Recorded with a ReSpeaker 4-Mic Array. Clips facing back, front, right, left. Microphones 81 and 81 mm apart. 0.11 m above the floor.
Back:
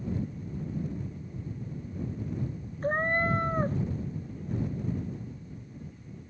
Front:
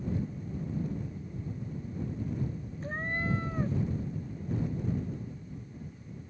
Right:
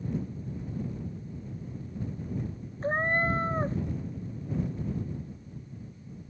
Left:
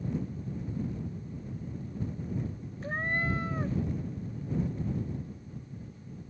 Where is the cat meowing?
140° right.